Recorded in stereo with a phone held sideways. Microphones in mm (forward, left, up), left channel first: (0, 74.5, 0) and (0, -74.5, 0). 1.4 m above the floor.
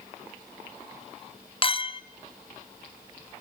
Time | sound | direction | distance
1.6 | a clink | 40° left (ahead or behind) | 0.6 m